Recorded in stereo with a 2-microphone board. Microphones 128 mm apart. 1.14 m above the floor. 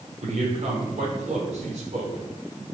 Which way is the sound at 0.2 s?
65° right (ahead or behind).